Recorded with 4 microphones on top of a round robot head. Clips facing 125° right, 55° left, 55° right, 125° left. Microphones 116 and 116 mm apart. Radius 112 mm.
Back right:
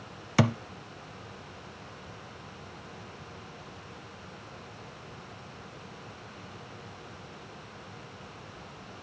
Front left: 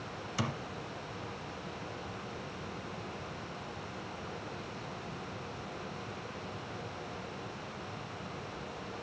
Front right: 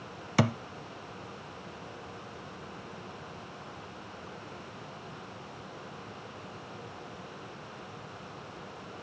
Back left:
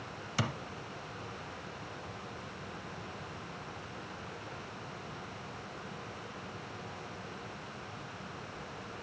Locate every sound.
0.4 s a thud: 95° right, 0.6 m